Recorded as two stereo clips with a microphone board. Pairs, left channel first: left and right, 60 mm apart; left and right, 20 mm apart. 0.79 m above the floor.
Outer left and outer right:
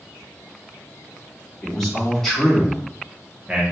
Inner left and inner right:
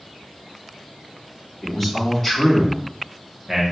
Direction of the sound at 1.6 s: 10° left (ahead or behind).